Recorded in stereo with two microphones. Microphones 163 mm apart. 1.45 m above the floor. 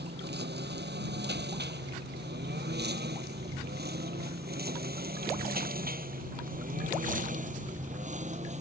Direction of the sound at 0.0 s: 80° right.